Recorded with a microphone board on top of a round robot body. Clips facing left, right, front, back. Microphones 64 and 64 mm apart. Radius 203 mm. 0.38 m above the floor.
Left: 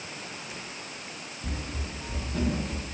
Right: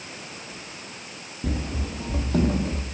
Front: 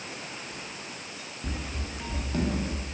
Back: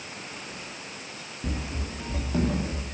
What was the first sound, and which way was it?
Running footsteps, 110° right.